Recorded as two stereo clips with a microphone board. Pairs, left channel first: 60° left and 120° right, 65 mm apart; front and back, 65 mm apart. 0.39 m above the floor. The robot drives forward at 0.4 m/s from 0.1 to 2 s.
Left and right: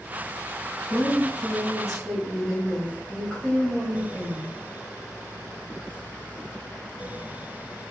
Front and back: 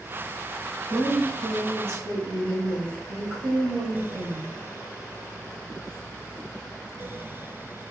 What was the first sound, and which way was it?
A woman speaking, 150° left.